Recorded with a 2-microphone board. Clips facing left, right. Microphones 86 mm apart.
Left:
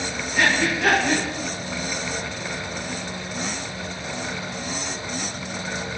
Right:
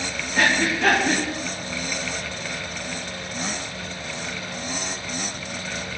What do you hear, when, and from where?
0.3 s breathing: 30° right (ahead or behind), 3.5 m